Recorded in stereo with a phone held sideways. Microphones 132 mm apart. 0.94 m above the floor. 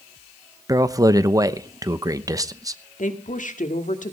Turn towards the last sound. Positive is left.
turn(degrees=75)  # may be behind; listen again after turning